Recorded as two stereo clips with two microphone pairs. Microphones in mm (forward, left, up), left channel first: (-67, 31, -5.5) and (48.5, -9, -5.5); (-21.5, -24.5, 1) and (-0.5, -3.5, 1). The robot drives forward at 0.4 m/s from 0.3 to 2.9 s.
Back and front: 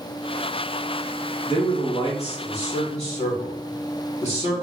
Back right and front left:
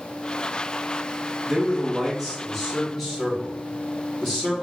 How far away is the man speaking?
About 1.7 m.